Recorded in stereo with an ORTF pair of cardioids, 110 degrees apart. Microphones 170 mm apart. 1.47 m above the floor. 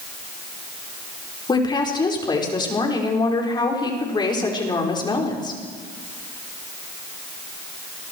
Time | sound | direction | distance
1.5 | a woman speaking | 25° left | 5.5 m